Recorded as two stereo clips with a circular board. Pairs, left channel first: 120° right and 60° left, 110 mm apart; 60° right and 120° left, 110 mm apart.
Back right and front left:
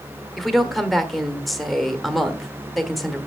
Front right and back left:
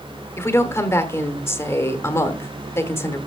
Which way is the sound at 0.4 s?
30° right.